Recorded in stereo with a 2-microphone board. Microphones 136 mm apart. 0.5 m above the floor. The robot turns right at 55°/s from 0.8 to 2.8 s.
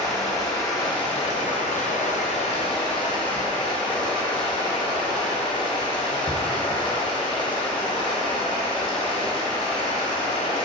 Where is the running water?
30° left, 1.7 m; by 10.7 s 140° left, 1.7 m.